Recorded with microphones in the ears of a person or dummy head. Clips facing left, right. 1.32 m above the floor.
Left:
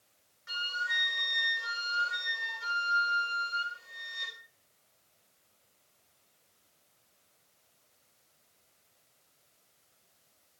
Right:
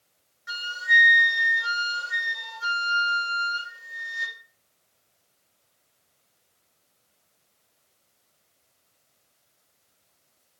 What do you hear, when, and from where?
0.5 s a flute: 10° right (ahead or behind), 3 m